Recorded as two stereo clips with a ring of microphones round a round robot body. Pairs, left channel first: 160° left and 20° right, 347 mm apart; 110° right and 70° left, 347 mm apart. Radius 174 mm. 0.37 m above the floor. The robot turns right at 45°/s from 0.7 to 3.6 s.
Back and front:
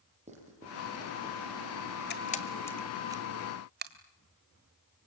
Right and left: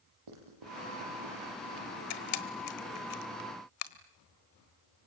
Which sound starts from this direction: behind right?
A camera shutter, at 2.1 s.